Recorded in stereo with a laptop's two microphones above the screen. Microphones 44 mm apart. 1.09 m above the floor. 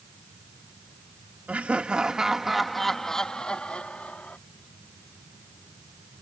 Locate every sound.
1.5 s laughter: 40° right (ahead or behind); by 4.4 s 35° left (ahead or behind)